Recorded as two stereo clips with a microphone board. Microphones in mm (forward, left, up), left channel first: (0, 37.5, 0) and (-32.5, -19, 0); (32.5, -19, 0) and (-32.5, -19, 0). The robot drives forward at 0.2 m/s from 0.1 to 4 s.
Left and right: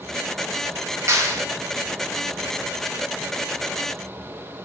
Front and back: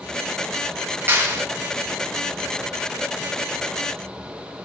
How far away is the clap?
About 1.0 m.